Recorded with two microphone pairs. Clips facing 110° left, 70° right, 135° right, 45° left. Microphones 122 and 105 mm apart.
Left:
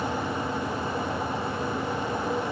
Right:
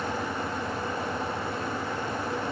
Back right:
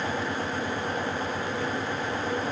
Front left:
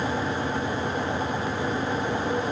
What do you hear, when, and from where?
Only background noise.